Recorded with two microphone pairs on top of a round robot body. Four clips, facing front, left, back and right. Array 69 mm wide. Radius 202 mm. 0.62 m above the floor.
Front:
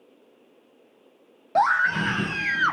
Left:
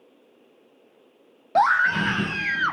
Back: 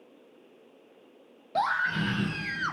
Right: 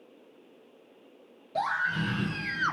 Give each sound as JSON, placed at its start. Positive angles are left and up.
{"t": 1.6, "sound": "a scream", "azimuth_deg": 65, "distance_m": 0.9}